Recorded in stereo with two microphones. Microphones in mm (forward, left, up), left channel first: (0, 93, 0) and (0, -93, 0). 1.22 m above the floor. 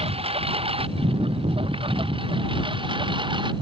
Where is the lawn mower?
35° right (ahead or behind); by 3.6 s 25° right (ahead or behind).